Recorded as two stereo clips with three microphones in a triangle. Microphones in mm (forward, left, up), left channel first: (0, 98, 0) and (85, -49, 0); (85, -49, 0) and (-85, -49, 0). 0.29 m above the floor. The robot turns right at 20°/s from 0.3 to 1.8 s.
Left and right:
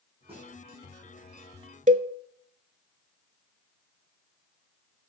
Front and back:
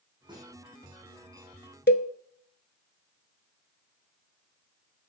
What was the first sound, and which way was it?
A snare drum, 115° right.